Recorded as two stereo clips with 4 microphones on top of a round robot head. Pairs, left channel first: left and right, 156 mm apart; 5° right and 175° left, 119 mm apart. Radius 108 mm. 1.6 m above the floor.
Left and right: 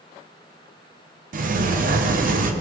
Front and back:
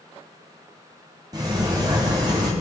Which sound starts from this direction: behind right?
A sliding door, at 1.3 s.